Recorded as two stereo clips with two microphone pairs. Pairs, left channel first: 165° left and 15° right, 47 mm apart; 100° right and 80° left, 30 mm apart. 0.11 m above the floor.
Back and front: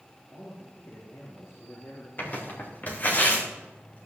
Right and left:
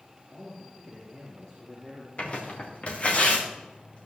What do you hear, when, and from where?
0.3 s a man speaking: 170° right, 5 m; by 3.2 s 165° left, 5.5 m
2.2 s tearing paper: 145° right, 3.5 m